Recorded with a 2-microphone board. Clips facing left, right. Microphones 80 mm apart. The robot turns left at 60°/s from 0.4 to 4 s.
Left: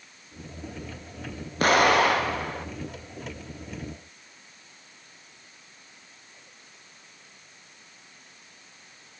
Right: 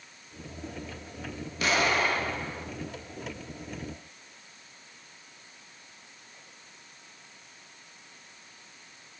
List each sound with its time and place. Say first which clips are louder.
1.6 s an explosion: left 7 dB; 130° left, 0.7 m; by 2.7 s 65° left, 0.7 m